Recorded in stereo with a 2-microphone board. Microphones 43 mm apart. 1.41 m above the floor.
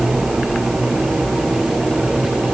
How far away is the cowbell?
No cowbell in this recording.